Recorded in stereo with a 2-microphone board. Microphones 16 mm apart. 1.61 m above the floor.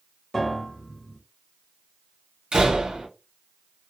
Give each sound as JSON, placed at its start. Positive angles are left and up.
{"t": 0.3, "sound": "a piano", "side_deg": 20, "distance_m": 1.2}
{"t": 2.5, "sound": "a door slam", "side_deg": -60, "distance_m": 1.0}